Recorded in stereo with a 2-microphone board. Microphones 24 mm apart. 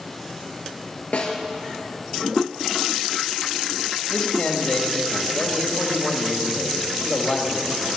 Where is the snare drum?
60° left (ahead or behind), 2.5 m.